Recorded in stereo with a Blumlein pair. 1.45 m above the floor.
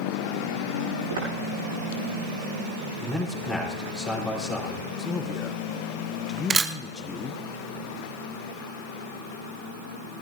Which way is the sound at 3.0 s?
Straight ahead.